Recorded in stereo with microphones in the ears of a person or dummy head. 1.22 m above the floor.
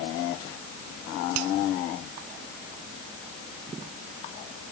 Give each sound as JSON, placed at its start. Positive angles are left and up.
{"t": 1.4, "sound": "a finger snap", "side_deg": -80}